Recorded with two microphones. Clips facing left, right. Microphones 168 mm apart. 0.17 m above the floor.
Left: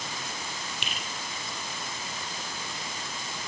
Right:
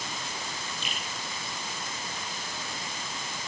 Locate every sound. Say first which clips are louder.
0.8 s a finger snap: even; 75° left (ahead or behind), 5.5 m